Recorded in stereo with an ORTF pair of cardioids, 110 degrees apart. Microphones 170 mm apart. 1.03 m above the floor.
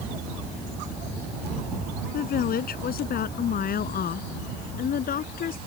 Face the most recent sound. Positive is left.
turn(degrees=55)